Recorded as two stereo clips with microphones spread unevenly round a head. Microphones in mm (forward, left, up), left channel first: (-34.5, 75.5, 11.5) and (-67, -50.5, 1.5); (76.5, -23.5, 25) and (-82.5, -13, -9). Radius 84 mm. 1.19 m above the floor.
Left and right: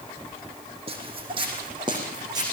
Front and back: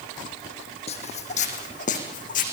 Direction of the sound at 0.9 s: 45° right.